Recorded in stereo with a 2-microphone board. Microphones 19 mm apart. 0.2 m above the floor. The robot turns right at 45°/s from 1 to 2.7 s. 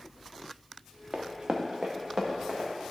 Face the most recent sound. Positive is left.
turn(degrees=-80)